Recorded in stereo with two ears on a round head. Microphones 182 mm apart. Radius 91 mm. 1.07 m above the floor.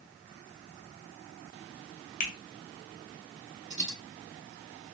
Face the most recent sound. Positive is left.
turn(degrees=-60)  # may be behind; listen again after turning